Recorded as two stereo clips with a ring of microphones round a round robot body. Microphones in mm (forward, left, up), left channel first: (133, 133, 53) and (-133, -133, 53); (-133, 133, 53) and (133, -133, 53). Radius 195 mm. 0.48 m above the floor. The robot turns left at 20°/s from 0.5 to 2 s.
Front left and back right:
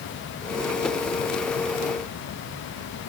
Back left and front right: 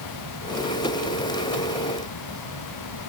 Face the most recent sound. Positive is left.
No sound to turn to.